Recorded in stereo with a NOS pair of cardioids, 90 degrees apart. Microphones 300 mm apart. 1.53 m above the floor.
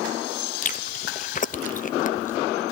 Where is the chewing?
30° left, 0.7 m.